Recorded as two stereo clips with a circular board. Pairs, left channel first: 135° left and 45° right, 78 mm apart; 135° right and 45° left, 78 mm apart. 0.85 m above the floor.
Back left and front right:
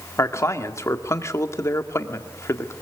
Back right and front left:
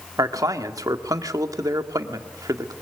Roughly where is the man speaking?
Left.